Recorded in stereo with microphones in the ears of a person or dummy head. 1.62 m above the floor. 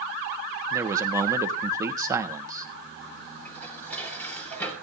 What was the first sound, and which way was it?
A man speaking, 20° right (ahead or behind).